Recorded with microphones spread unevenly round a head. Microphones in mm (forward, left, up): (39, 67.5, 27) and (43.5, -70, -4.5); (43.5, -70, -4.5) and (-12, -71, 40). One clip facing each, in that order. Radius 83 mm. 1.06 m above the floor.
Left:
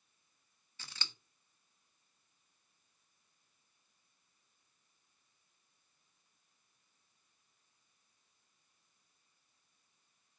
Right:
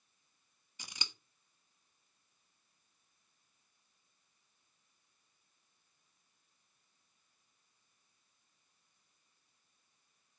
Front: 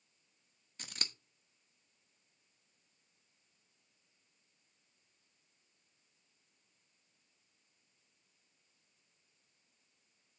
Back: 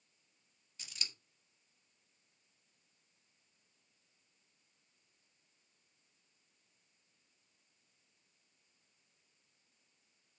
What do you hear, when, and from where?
0.8 s scissors: 15° right, 1.0 m